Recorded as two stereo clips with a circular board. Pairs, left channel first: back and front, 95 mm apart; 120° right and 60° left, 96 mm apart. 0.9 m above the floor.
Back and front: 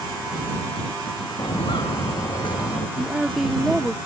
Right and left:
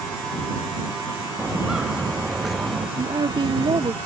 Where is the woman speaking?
85° left.